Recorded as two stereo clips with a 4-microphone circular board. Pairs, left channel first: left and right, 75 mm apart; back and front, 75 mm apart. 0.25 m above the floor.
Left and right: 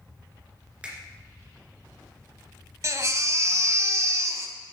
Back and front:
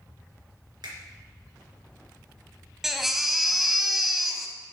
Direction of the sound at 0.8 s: 15° right.